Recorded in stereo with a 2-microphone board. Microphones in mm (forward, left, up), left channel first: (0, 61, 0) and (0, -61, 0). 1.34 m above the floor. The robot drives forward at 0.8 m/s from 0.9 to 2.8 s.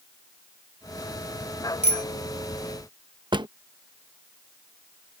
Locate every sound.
1.8 s a bicycle bell: 80° left; by 2.0 s 75° left (ahead or behind)
3.3 s a drawer: 40° right (ahead or behind)